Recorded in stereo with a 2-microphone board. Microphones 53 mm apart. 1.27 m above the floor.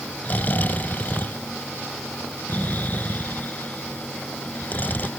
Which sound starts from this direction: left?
Snoring, at 0.2 s.